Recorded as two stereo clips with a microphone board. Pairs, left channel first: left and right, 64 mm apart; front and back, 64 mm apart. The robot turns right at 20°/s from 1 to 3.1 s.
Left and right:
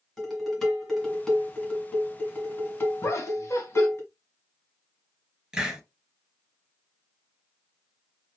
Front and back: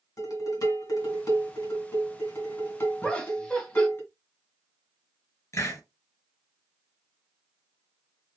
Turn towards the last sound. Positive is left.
turn(degrees=-10)